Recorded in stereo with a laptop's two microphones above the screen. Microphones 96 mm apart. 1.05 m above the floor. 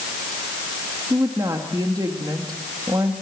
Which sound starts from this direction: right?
A woman speaking, at 1.1 s.